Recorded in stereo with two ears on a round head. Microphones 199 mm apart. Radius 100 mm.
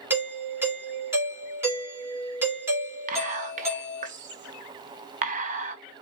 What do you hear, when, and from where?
0.1 s a doorbell: 10° right (ahead or behind), 2.5 m
3.1 s whispering: 35° right (ahead or behind), 0.6 m